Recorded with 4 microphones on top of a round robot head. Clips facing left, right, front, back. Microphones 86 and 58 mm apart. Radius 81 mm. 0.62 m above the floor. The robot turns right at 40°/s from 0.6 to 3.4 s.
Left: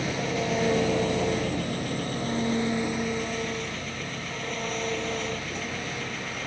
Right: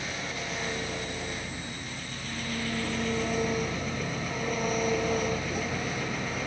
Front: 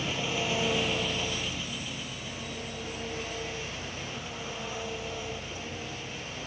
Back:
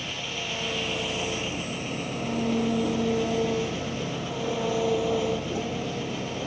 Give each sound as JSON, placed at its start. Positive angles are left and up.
{"t": 0.0, "sound": "an engine running", "azimuth_deg": 75}